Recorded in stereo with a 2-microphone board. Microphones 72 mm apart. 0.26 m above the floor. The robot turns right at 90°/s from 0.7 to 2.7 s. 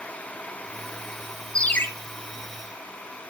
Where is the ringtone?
10° left (ahead or behind), 1.3 m; by 1.9 s 35° left (ahead or behind), 1.3 m.